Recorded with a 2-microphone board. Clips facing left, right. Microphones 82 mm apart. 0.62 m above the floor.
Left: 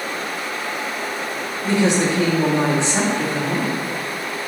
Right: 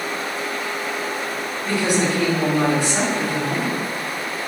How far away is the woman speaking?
About 0.9 m.